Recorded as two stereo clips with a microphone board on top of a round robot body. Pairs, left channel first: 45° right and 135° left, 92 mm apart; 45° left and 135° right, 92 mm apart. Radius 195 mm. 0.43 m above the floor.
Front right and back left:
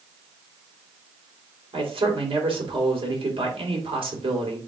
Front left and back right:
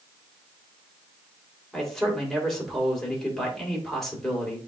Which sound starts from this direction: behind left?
A man speaking, at 1.7 s.